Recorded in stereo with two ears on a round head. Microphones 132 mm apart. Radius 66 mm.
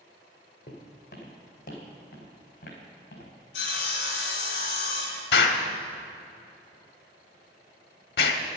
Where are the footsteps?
50° left (ahead or behind), 2.5 m; by 3.3 s 60° left (ahead or behind), 4 m.